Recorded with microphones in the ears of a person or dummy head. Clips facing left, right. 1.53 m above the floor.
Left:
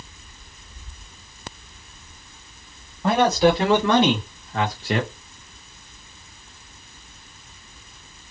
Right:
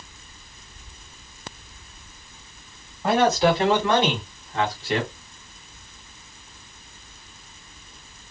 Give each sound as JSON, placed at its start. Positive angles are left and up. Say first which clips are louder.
{"t": 3.0, "sound": "a man speaking", "louder": "left 1 dB", "side_deg": 70, "distance_m": 1.4}